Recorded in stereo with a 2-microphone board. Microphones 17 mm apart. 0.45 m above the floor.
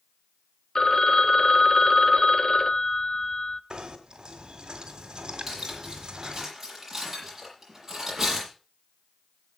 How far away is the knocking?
About 2 m.